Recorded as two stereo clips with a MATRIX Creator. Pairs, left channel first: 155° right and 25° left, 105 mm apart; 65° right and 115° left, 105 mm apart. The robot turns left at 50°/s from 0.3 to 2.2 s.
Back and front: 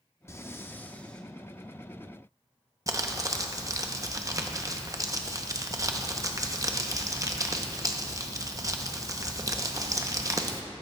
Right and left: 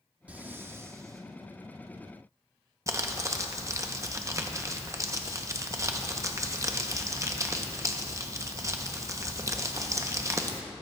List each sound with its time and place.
0.3 s breathing: 175° left, 0.5 m; by 1.3 s 125° left, 0.5 m
2.9 s crumpling: 65° left, 0.7 m